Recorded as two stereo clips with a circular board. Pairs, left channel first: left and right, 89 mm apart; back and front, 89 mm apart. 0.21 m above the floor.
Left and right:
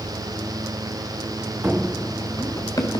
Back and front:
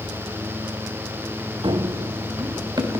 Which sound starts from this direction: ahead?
Running footsteps, at 1.6 s.